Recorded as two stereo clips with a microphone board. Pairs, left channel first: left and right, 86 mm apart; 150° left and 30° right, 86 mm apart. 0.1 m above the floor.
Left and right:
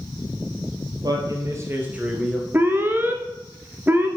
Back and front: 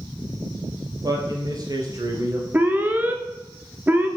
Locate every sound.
1.0 s a man speaking: 65° right, 2.5 m; by 2.4 s 10° left, 1.8 m
2.5 s an alarm: 70° right, 0.9 m